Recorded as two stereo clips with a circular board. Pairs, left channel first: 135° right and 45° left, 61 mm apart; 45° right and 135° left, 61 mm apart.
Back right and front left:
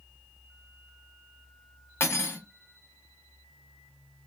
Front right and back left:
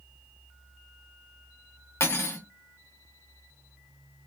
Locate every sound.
2.0 s cutlery clinking: 90° right, 1.1 m